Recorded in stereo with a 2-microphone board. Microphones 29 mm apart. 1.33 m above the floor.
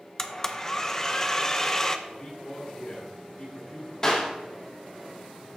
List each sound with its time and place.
0.2 s a blender: 15° left (ahead or behind), 0.5 m
2.1 s a man speaking: 45° left (ahead or behind), 1.9 m
4.0 s a clap: 25° left (ahead or behind), 2.5 m